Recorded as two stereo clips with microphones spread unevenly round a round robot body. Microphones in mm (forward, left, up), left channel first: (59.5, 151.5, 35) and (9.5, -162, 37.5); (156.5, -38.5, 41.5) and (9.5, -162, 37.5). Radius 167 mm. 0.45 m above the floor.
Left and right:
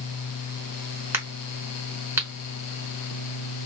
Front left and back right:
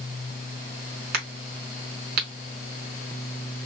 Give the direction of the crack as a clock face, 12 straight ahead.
6 o'clock.